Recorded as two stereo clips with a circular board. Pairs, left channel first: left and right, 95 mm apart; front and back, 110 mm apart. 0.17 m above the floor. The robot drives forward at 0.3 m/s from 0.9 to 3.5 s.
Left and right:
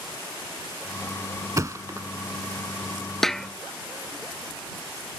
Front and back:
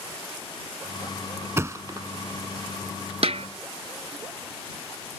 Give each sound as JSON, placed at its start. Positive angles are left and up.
{"t": 1.6, "sound": "a thud", "azimuth_deg": -125}
{"t": 3.2, "sound": "a snare drum", "azimuth_deg": 175}